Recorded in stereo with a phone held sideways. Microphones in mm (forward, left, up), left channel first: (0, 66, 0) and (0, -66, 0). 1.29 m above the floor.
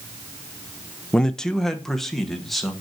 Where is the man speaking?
5° left (ahead or behind), 0.5 m; by 2.7 s centre (ahead or behind), 1.8 m.